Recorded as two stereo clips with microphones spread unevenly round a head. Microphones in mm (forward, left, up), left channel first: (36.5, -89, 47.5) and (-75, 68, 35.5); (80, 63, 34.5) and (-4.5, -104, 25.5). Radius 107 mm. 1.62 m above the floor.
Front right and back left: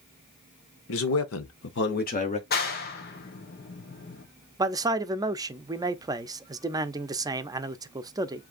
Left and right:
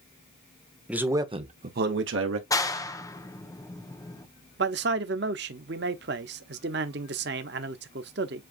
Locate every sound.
0.9 s a man speaking: 35° right, 1.2 m; by 2.4 s 115° right, 1.2 m
2.5 s a clap: 10° right, 1.0 m
4.6 s a man speaking: 160° right, 0.6 m